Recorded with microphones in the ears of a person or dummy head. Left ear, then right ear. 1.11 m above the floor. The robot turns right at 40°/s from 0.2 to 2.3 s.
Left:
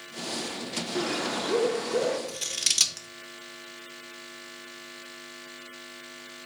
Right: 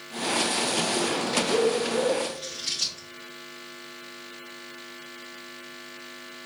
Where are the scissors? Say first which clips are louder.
Left 4 dB; 50° left (ahead or behind), 0.7 m.